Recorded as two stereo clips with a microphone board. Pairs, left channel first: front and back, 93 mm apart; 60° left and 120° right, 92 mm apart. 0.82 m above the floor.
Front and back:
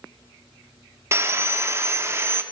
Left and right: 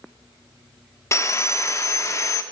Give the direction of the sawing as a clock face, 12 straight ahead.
8 o'clock.